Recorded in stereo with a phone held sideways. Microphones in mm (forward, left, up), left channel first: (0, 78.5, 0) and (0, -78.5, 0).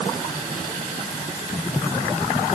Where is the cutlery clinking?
I don't hear cutlery clinking.